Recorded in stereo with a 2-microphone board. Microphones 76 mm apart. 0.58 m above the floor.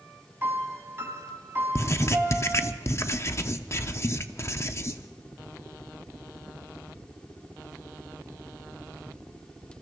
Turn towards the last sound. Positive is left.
turn(degrees=35)  # may be behind; listen again after turning